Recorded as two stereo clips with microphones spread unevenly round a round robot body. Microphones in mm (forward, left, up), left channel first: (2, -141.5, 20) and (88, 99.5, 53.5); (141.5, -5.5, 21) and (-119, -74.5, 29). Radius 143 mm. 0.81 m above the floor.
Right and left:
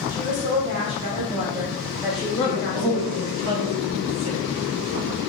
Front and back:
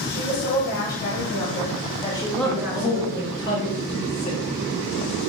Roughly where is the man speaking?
Left.